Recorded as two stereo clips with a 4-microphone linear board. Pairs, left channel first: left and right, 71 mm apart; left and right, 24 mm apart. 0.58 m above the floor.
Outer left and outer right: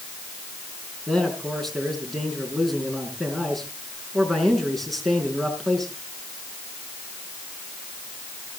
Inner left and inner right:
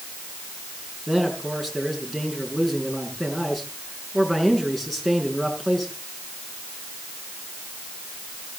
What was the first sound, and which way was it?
A man speaking, 5° left (ahead or behind).